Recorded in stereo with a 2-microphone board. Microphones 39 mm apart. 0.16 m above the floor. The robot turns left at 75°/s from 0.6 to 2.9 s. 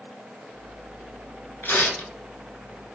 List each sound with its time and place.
1.6 s tearing paper: 90° left, 0.8 m; by 2.1 s 55° left, 0.8 m